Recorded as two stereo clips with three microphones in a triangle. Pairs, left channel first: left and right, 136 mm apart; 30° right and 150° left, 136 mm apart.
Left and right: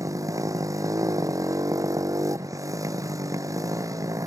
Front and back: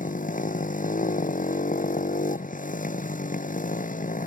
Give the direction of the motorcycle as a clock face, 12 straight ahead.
1 o'clock.